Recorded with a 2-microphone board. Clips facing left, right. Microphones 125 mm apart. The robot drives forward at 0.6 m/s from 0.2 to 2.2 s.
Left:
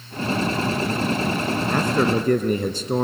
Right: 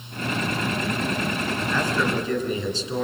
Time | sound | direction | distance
1.7 | a man speaking | 50° left (ahead or behind) | 1.9 m